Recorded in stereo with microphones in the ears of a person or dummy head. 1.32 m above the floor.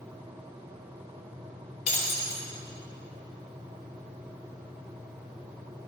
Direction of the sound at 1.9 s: 40° left (ahead or behind).